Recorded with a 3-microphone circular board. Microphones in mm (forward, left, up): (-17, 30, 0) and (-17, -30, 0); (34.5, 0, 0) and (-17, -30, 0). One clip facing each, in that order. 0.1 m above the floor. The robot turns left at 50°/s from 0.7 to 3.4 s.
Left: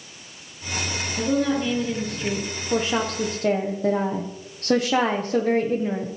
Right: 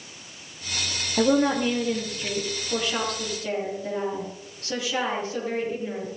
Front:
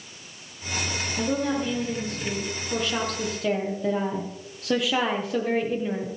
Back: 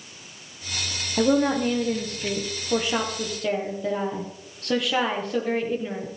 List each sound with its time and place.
1.2 s a woman speaking: 130° right, 4 m; by 6.1 s 120° left, 4 m